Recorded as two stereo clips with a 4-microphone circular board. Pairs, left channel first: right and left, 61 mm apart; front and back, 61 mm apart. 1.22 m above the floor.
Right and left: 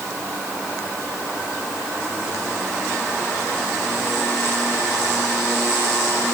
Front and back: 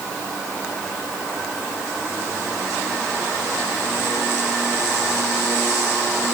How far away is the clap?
No clap in this recording.